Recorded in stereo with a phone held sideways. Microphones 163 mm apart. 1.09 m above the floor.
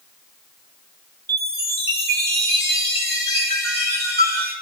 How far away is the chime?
About 4 m.